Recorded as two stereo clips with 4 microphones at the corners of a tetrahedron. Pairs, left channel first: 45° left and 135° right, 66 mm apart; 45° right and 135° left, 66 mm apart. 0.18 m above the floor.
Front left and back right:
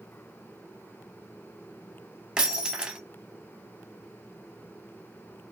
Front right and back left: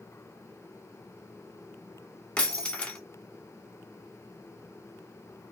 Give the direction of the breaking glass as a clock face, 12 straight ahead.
3 o'clock.